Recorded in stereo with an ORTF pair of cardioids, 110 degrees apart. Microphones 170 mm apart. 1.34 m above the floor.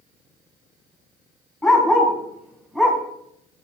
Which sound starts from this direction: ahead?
A dog barking, at 1.6 s.